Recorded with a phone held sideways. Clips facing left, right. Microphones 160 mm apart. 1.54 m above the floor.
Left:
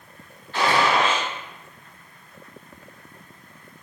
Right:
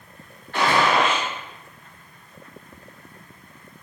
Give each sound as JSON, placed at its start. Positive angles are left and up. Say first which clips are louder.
{"t": 0.5, "sound": "a gunshot", "louder": "right 1 dB", "side_deg": -55, "distance_m": 1.3}